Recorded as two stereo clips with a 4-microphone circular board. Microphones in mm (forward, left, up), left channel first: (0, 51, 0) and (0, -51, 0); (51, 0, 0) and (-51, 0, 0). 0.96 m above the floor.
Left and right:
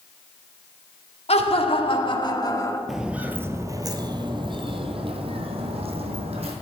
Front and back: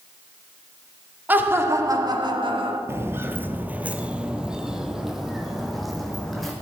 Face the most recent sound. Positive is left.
turn(degrees=-90)